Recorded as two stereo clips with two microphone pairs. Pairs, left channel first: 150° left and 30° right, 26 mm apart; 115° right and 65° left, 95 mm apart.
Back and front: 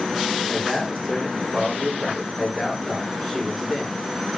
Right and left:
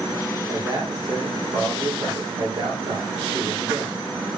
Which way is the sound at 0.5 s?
60° left.